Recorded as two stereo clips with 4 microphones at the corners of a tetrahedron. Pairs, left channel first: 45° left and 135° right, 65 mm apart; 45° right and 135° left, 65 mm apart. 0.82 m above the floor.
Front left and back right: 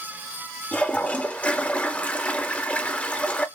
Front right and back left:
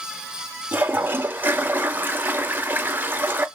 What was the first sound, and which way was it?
A toilet flushing, 95° left.